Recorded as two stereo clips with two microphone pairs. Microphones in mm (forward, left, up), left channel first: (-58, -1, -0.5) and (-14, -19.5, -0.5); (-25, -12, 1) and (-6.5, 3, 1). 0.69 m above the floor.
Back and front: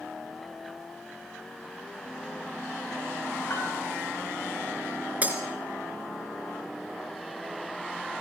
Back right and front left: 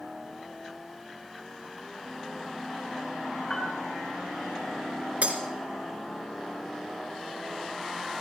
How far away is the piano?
About 4.5 m.